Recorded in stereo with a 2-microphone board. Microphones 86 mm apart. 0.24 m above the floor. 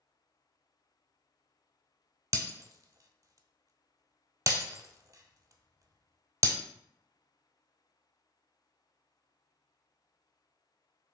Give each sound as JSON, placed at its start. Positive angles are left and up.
{"t": 2.3, "sound": "breaking glass", "side_deg": -40, "distance_m": 0.6}